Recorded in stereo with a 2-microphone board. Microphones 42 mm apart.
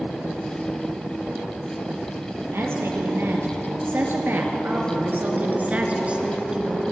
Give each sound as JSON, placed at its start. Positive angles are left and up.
{"t": 2.5, "sound": "a woman speaking", "side_deg": -75, "distance_m": 5.5}